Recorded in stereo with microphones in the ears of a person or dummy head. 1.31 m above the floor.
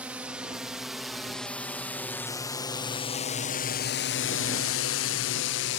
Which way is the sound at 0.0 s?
10° right (ahead or behind).